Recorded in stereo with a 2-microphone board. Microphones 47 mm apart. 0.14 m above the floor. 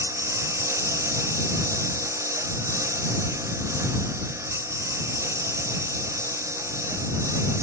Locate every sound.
0.0 s a lawn mower: 90° right; by 7.6 s 85° right